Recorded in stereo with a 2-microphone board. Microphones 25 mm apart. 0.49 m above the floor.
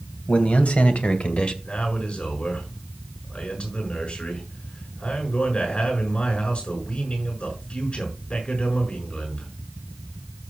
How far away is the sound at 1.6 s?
About 6 m.